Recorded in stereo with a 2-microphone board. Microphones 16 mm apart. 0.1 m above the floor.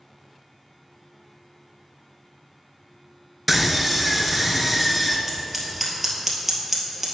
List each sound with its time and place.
3.5 s a scream: 5° right (ahead or behind), 1.3 m
5.3 s scissors: 15° right (ahead or behind), 2.5 m